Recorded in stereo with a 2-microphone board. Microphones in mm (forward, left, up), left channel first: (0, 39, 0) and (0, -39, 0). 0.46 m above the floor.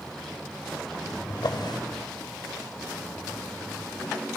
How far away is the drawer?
About 1.0 m.